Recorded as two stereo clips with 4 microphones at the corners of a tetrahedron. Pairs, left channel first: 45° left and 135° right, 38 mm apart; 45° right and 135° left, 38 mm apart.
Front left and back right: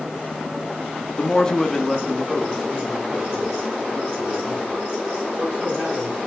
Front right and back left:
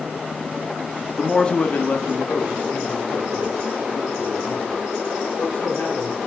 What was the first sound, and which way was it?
A man speaking, 50° left.